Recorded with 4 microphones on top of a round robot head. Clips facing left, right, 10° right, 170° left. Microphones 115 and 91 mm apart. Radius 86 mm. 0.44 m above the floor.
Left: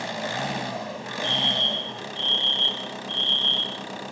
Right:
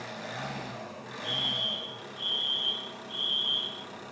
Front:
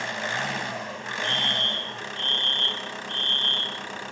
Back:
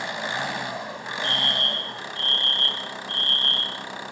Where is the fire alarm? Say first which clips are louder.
Left 9 dB, back 1 dB; 75° left, 8.5 m.